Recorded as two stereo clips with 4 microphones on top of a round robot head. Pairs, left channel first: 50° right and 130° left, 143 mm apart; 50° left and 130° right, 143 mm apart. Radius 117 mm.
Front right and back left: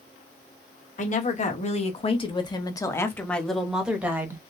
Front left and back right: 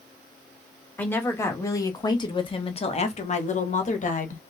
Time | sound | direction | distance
1.0 | a woman speaking | 30° right | 1.7 m